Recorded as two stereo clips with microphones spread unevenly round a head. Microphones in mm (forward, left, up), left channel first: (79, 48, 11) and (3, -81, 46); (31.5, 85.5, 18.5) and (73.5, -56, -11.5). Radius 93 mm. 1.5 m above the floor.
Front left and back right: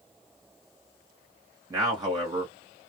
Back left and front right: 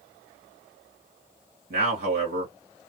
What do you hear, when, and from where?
1.7 s a man speaking: 55° right, 1.3 m